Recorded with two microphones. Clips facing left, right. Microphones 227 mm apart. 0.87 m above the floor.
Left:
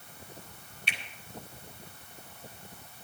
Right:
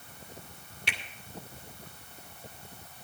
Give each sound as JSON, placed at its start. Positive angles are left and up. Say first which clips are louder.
{"t": 0.9, "sound": "a finger snap", "louder": "right 3 dB", "side_deg": -75, "distance_m": 2.0}